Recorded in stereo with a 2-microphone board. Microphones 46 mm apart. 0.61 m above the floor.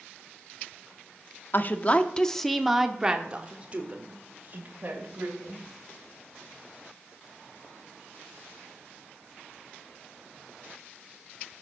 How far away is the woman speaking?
About 0.8 m.